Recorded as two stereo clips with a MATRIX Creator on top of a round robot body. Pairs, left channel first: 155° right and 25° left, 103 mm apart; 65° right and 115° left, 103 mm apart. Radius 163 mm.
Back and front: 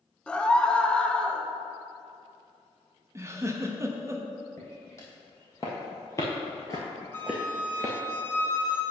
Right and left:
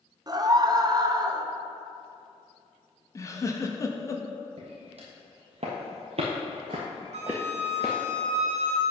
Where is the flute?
135° left, 0.6 m.